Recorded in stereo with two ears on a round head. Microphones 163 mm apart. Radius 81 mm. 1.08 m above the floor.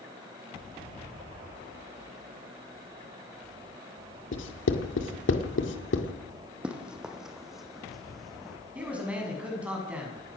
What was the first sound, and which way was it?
Writing, 75° left (ahead or behind).